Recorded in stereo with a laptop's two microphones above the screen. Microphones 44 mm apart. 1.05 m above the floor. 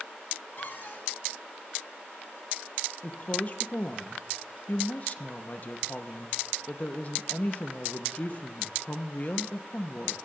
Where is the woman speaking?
40° left (ahead or behind), 0.9 m.